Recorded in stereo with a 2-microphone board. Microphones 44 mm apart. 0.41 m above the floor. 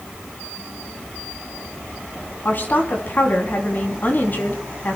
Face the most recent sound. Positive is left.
turn(degrees=45)  # may be behind; listen again after turning